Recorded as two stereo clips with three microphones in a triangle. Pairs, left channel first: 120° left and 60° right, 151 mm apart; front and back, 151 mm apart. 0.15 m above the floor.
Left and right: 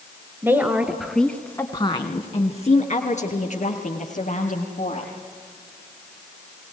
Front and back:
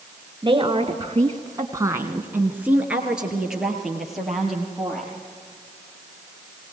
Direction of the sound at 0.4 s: 125° right.